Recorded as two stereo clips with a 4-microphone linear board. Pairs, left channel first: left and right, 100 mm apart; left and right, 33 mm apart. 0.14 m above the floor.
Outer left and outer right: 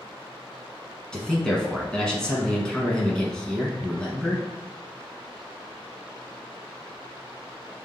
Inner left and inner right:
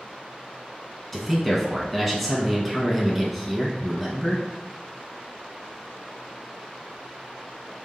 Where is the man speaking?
10° left (ahead or behind), 1.1 m.